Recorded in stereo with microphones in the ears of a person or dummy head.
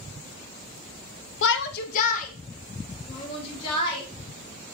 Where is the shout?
75° left (ahead or behind), 0.5 m; by 4.0 s 35° left (ahead or behind), 2 m.